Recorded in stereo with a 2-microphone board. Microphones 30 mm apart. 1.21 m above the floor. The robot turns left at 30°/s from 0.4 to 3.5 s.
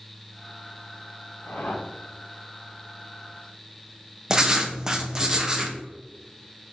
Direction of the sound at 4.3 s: 20° right (ahead or behind).